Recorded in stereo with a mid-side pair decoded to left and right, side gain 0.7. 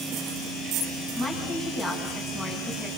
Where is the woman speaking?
10° right, 9.5 m.